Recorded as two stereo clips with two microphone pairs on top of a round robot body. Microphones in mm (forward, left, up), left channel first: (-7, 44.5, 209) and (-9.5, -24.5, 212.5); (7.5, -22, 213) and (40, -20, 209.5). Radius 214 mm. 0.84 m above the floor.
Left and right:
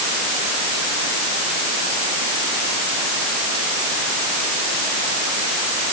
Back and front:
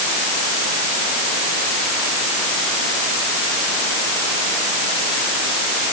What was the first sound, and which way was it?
Only background noise.